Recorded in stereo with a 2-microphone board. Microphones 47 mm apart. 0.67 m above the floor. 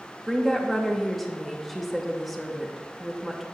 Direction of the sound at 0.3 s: Centre (ahead or behind).